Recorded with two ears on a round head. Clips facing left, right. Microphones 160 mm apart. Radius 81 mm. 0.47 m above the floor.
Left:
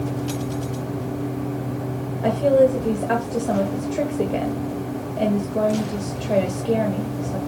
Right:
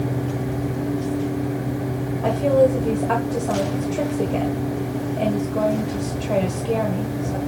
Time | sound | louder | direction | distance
2.2 | a woman speaking | left 1 dB | 20° left (ahead or behind) | 1.4 m